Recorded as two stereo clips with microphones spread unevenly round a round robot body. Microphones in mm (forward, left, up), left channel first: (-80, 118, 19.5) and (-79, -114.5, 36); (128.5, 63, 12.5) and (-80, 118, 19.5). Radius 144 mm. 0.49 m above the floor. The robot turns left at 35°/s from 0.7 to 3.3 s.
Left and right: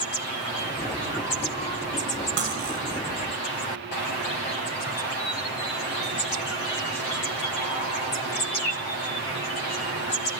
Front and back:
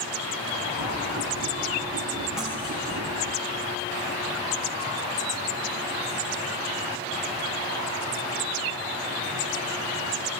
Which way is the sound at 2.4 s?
105° right.